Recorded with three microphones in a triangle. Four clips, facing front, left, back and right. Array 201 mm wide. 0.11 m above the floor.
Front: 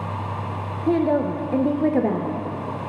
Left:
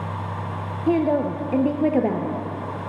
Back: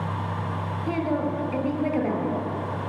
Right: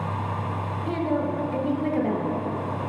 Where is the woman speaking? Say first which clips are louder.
Left 6 dB, front 7 dB; 50° left, 1.7 m.